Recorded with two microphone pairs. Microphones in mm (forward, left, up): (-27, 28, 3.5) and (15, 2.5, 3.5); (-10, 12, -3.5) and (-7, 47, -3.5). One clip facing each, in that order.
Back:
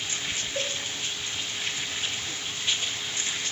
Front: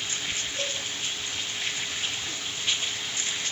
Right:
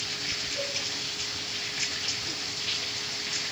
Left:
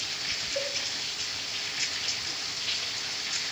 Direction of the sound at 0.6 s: 130° left.